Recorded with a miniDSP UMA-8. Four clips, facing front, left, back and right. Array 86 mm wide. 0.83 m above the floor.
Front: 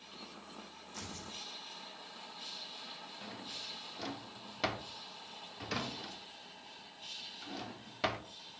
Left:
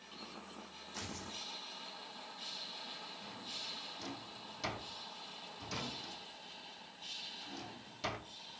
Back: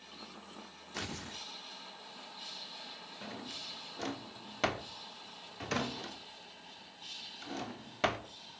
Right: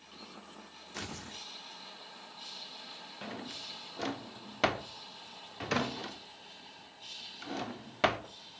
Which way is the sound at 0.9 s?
150° right.